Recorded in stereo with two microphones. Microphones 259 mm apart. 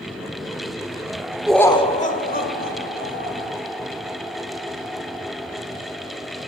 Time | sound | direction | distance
1.5 | laughter | 5° right (ahead or behind) | 0.7 m